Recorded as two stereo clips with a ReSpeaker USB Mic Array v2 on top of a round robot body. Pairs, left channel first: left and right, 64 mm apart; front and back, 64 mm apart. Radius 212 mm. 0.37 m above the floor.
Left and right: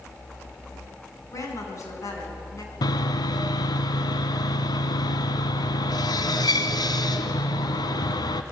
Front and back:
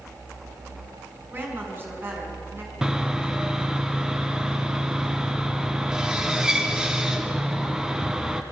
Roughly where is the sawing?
Left.